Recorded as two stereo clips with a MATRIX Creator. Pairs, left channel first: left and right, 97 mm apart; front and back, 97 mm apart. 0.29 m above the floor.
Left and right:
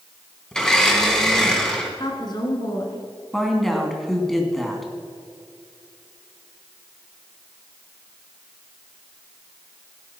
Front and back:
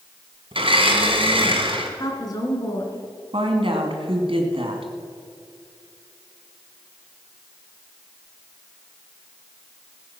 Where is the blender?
170° left, 2.5 m.